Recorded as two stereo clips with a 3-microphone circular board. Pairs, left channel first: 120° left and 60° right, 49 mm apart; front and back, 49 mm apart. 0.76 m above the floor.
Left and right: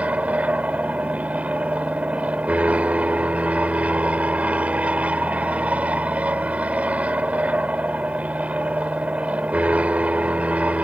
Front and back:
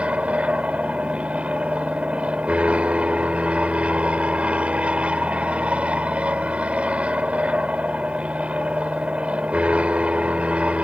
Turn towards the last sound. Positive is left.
turn(degrees=-120)